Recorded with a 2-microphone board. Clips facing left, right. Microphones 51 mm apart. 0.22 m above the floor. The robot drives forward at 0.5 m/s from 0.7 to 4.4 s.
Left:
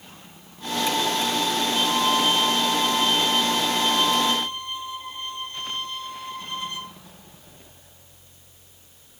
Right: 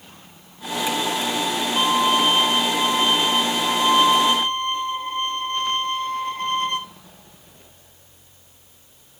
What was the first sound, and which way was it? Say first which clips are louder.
A violin: right 5 dB; 45° right (ahead or behind).